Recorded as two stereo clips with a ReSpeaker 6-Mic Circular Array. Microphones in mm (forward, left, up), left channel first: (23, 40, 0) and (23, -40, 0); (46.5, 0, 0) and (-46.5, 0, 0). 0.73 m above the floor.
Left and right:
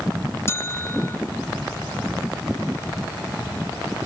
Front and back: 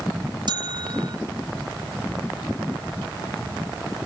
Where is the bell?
145° left.